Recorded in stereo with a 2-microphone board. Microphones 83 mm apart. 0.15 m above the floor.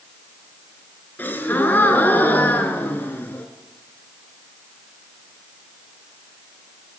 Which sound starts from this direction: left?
A gasp, at 1.2 s.